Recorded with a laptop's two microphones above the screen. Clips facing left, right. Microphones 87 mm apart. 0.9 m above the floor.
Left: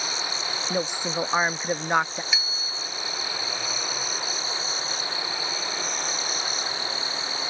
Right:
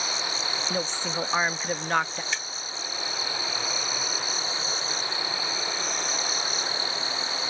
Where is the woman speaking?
15° left (ahead or behind).